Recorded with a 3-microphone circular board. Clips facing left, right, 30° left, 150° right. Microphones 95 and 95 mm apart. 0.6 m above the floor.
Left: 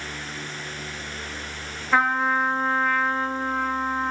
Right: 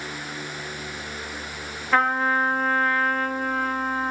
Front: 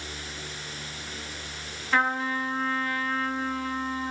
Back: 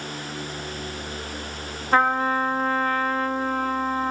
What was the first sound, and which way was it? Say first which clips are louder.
A trumpet: even, back 6 dB; 175° left.